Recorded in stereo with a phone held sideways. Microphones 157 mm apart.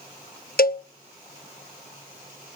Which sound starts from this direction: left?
A cowbell, at 0.6 s.